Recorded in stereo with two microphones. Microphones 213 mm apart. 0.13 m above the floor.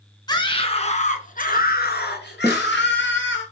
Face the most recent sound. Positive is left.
turn(degrees=-10)  # may be behind; listen again after turning